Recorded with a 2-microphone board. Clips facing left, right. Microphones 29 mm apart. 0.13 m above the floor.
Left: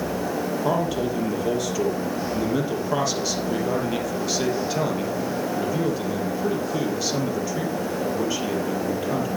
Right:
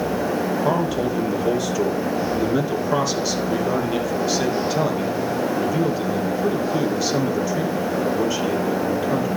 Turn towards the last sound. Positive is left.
turn(degrees=0)  # may be behind; listen again after turning